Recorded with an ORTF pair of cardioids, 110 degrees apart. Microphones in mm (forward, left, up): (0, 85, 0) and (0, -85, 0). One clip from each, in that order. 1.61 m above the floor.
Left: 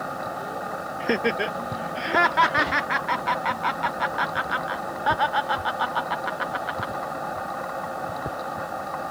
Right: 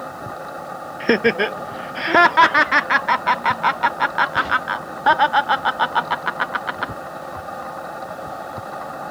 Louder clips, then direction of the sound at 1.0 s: Right 7 dB; 30° right.